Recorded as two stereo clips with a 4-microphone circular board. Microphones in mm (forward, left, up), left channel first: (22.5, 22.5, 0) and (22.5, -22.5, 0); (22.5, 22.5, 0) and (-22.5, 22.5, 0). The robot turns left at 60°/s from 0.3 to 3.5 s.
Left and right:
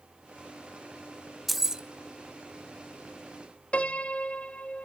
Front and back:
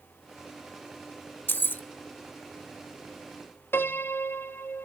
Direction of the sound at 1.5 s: 5° right.